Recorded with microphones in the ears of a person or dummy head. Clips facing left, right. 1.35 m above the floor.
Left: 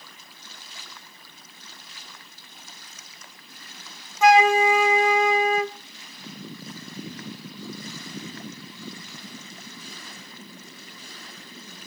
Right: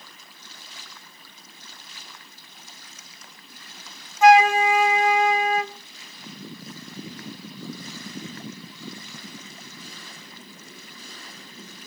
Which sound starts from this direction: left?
A flute, at 4.2 s.